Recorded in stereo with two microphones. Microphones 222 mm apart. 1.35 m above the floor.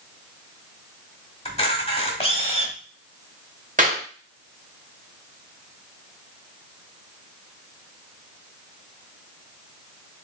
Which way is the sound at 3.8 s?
35° right (ahead or behind).